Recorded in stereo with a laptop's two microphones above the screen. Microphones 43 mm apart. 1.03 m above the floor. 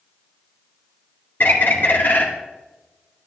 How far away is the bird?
About 2 m.